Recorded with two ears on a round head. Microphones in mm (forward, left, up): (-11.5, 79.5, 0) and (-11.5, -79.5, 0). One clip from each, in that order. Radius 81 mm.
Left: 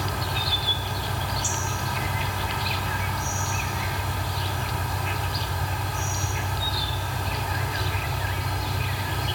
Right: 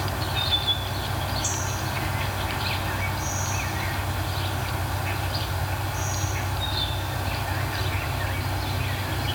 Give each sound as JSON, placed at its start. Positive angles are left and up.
{"t": 0.0, "sound": "an insect", "side_deg": -5, "distance_m": 0.9}